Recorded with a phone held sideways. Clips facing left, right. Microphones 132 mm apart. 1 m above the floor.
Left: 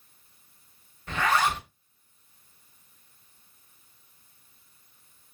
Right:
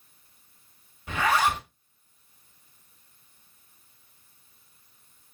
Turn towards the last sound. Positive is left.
turn(degrees=-10)  # may be behind; listen again after turning